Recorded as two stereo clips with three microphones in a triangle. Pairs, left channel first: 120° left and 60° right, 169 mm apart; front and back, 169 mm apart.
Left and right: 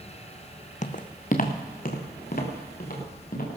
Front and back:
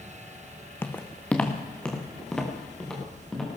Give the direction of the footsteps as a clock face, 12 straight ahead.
9 o'clock.